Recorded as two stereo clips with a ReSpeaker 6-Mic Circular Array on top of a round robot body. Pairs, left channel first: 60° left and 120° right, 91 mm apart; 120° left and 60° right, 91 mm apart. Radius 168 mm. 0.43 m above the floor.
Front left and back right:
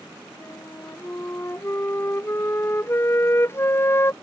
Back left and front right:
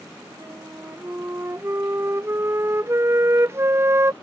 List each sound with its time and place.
0.4 s a flute: straight ahead